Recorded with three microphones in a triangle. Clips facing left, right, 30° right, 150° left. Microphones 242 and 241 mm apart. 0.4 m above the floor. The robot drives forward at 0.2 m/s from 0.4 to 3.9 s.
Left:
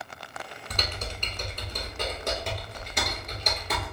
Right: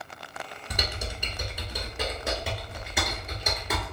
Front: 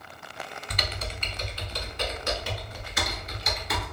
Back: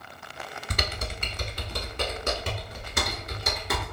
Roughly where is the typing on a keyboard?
Behind.